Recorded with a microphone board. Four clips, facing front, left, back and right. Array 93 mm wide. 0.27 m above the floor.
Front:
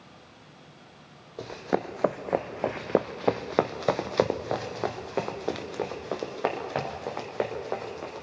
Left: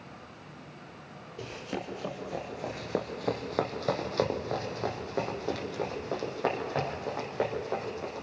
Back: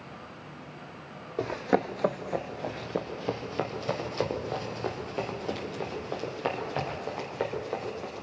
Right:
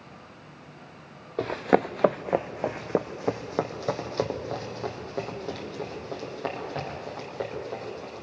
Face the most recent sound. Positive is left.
turn(degrees=10)